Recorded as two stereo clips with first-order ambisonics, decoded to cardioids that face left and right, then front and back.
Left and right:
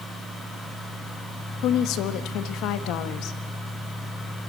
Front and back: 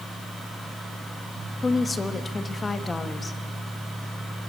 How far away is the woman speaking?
About 1.3 m.